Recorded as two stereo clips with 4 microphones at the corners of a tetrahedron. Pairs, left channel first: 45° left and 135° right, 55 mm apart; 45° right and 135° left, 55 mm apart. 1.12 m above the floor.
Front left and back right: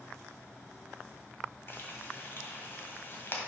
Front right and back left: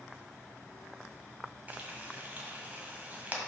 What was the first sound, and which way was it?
Frying, 80° left.